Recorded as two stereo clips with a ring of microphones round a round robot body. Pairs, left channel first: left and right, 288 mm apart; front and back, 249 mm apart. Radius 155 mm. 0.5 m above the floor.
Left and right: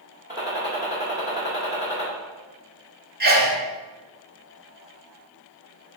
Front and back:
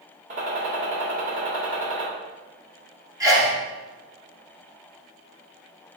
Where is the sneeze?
115° right, 1.0 m.